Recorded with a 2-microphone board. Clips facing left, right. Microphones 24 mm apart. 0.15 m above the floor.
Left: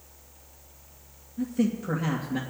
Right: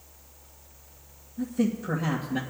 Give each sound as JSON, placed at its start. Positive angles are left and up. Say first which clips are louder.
{"t": 1.4, "sound": "a man speaking", "louder": "even", "side_deg": 30, "distance_m": 2.5}